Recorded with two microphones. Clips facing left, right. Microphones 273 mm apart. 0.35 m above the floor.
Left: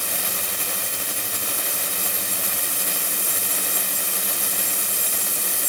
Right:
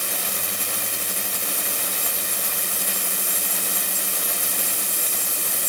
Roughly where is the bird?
I don't hear a bird.